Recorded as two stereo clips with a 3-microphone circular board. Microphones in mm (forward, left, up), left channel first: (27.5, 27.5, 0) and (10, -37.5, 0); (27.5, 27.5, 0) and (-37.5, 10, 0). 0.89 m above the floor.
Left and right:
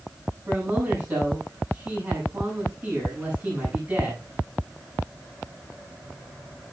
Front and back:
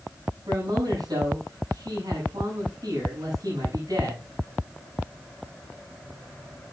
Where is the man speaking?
155° right, 7.5 m.